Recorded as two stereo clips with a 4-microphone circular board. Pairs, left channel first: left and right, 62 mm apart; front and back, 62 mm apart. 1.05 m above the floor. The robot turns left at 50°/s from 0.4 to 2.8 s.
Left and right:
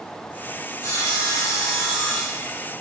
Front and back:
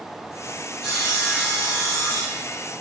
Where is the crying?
No crying in this recording.